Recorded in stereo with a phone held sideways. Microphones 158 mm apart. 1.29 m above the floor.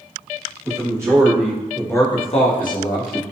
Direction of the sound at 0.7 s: 25° right (ahead or behind).